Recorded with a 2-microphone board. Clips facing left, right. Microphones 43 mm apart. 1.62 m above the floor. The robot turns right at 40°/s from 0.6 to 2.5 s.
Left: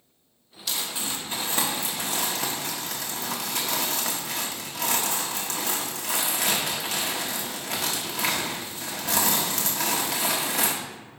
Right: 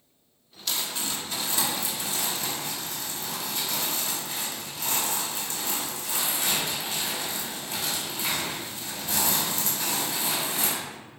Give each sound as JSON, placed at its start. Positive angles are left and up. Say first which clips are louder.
{"t": 0.7, "sound": "crumpling", "louder": "even", "azimuth_deg": 5, "distance_m": 1.3}